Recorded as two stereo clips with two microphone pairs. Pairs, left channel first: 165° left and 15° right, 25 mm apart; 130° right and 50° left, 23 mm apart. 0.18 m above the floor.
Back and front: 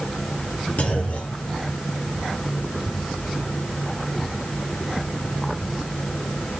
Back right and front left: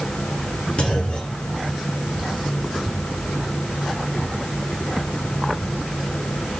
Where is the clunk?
175° right, 3 m.